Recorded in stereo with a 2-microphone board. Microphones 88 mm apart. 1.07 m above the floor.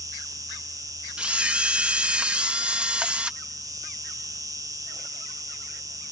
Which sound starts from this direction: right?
An insect, at 0.0 s.